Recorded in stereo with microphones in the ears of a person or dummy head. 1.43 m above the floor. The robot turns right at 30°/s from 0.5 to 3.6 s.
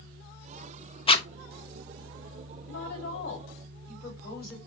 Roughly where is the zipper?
Left.